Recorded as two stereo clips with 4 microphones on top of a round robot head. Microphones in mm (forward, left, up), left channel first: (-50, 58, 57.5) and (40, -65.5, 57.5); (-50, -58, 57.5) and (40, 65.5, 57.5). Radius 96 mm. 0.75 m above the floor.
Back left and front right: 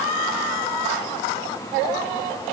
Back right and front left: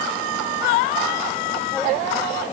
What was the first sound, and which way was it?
Only background noise.